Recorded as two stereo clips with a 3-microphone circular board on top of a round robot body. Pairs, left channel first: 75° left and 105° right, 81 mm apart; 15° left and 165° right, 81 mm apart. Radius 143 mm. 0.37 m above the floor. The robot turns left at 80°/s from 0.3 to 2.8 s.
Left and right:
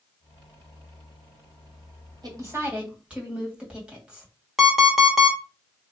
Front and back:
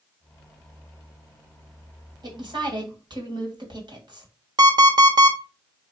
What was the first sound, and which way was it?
A woman speaking, 135° right.